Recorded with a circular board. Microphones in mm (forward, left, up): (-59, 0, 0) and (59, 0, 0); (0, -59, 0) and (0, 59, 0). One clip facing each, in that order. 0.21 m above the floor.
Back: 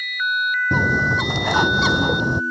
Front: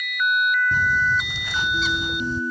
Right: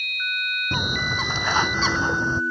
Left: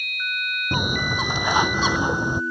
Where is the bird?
165° left.